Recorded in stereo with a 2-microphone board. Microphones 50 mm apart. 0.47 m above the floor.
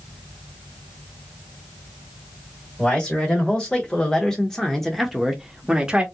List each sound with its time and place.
2.8 s a man speaking: 20° left (ahead or behind), 1.6 m; by 6.0 s 20° right (ahead or behind), 0.8 m